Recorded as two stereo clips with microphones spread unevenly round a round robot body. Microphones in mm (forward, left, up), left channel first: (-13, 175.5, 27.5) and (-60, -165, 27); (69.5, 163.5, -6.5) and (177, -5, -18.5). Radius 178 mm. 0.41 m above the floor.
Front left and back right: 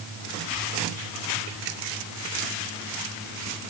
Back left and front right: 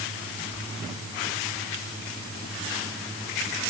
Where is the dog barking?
No dog barking in this recording.